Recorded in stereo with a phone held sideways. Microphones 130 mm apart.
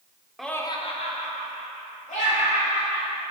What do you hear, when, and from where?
0.4 s laughter: centre (ahead or behind), 0.6 m; by 3.2 s 80° left, 3.5 m